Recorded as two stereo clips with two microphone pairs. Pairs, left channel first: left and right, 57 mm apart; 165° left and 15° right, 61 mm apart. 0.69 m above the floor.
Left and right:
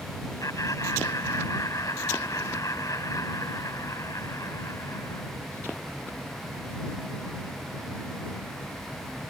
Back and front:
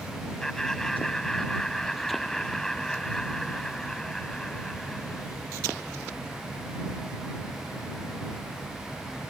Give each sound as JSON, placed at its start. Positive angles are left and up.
{"t": 0.4, "sound": "laughter", "azimuth_deg": 80}